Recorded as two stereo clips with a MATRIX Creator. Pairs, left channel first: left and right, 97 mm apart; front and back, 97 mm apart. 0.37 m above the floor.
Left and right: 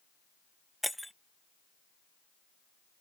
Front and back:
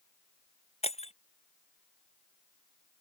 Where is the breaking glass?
Straight ahead.